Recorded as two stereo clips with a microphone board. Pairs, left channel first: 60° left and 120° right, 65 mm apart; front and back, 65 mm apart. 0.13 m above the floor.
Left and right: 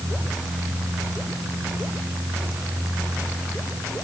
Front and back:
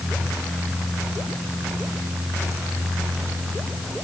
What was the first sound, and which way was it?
Only background noise.